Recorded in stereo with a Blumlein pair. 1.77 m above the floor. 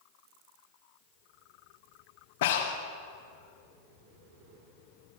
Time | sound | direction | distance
2.4 | breathing | 55° left | 1.3 m